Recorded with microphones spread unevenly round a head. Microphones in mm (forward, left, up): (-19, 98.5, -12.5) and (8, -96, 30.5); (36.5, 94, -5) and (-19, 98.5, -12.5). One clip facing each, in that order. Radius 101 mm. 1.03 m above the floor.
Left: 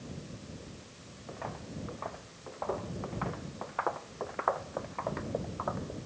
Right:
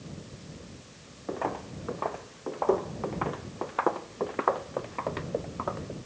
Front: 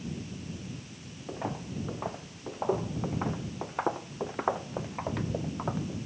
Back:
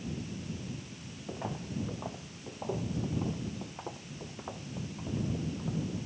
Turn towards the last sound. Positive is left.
turn(degrees=-35)